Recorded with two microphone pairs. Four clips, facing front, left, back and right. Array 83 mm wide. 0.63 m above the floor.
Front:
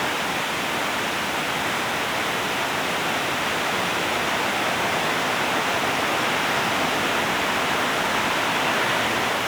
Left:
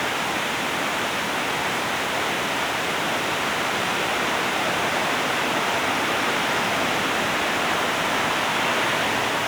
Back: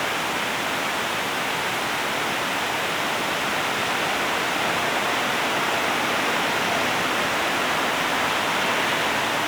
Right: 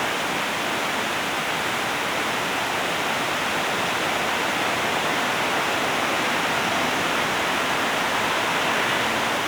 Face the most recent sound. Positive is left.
No sound to turn to.